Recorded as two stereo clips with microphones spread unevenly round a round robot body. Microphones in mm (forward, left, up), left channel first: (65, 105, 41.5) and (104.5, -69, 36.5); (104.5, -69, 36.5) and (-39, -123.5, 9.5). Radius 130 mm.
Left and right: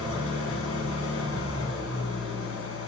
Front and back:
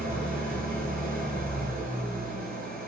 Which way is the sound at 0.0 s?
105° left.